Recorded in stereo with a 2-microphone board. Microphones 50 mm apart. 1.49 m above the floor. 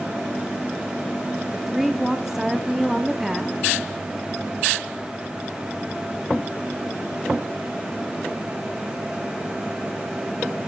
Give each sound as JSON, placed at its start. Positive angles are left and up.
{"t": 1.5, "sound": "a woman speaking", "side_deg": -10, "distance_m": 0.7}